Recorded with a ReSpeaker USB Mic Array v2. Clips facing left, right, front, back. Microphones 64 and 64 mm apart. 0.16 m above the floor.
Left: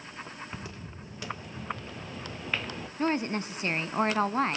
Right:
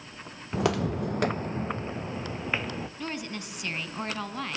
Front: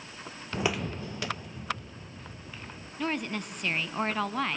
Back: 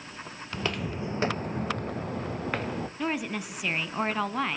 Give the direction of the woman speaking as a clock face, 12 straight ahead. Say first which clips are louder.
Left 7 dB, front 1 dB; 9 o'clock.